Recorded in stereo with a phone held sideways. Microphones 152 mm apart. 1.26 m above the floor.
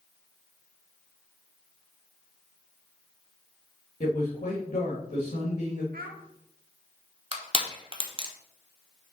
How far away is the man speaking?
About 1.9 m.